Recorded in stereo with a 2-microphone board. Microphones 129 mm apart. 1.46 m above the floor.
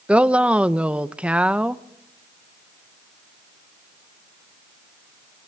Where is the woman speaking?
10° right (ahead or behind), 1.0 m.